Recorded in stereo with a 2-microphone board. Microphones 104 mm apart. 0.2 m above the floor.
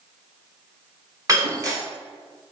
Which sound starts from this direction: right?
Breaking glass, at 1.3 s.